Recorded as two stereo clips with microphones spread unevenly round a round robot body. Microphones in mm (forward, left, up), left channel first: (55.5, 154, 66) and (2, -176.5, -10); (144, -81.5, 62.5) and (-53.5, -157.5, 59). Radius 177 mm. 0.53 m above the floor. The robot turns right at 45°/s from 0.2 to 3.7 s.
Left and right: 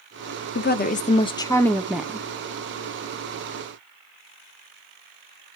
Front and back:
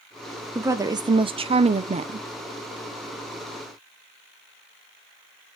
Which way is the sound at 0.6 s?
135° left.